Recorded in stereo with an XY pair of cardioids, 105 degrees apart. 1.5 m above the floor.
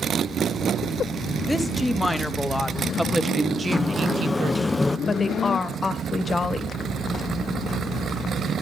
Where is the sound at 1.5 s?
15° left, 2.0 m; by 4.6 s 75° right, 0.8 m.